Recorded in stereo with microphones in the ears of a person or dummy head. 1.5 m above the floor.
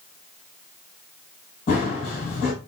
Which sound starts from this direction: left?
Running footsteps, at 1.7 s.